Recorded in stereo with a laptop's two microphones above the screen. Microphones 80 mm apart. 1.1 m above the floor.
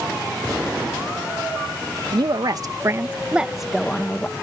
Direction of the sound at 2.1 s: 60° right (ahead or behind).